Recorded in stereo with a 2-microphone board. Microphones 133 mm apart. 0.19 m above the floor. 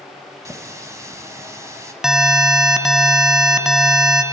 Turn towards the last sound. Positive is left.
turn(degrees=-5)  # may be behind; listen again after turning